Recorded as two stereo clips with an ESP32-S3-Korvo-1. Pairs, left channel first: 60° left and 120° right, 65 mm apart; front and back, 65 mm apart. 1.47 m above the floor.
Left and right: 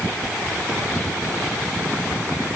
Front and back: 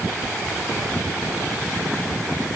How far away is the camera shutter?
I don't hear a camera shutter.